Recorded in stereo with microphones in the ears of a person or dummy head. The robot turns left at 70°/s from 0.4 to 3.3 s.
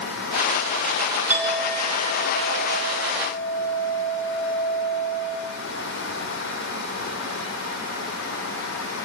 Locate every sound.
1.3 s a clink: 170° right, 1.6 m; by 5.4 s 50° left, 1.6 m